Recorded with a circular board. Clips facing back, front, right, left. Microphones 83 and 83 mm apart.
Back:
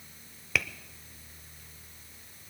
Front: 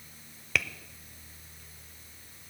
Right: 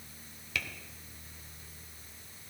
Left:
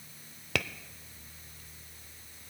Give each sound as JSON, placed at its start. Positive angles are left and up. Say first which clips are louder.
{"t": 0.6, "sound": "tapping", "louder": "even, left 5 dB", "azimuth_deg": 90, "distance_m": 0.6}